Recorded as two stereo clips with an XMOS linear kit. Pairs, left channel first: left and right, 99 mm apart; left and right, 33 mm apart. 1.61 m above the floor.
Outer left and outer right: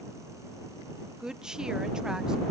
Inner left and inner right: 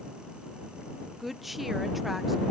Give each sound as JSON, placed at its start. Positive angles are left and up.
{"t": 1.2, "sound": "a woman speaking", "side_deg": -5}